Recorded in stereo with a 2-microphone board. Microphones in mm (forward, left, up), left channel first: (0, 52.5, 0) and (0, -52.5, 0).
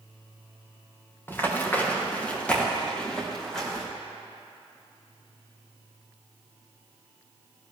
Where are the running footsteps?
20° left (ahead or behind), 4 m; by 3.8 s 5° left (ahead or behind), 5.5 m.